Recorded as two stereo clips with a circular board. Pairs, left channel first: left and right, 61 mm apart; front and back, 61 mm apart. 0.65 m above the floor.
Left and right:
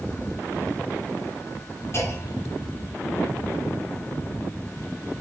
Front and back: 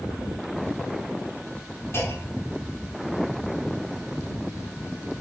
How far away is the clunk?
About 4 m.